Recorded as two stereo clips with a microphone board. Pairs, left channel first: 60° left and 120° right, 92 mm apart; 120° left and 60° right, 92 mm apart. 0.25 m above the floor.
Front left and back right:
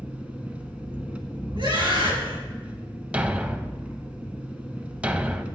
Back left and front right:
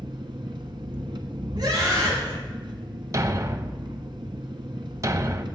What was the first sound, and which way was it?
An engine running, 45° right.